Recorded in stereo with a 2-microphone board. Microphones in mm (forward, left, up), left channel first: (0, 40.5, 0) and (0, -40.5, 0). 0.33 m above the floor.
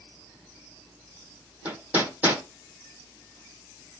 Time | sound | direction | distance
1.6 | hammering | 20° right (ahead or behind) | 4.5 m